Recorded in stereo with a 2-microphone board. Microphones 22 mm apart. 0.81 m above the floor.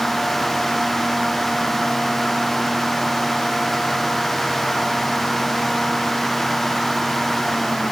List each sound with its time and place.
Only background noise.